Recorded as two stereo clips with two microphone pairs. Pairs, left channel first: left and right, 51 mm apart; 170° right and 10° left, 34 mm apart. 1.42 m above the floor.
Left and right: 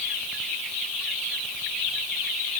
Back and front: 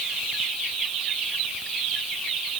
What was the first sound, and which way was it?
Only background noise.